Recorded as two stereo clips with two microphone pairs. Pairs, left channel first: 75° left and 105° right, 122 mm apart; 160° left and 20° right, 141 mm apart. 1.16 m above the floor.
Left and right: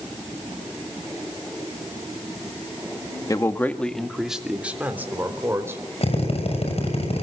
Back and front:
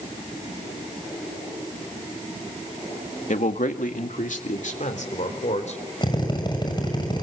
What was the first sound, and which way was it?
A man speaking, 135° left.